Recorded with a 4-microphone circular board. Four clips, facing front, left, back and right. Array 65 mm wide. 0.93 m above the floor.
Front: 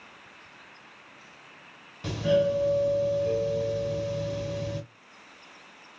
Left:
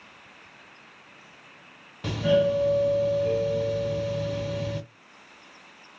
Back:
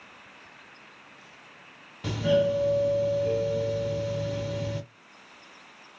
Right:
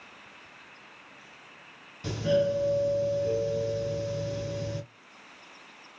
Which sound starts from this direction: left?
A doorbell, at 2.0 s.